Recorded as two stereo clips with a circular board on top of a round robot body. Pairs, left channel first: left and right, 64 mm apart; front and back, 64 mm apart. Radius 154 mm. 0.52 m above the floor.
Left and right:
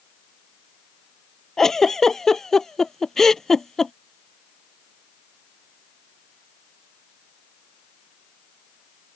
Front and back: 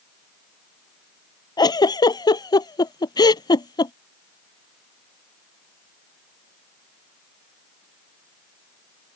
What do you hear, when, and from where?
1.6 s a giggle: 5° left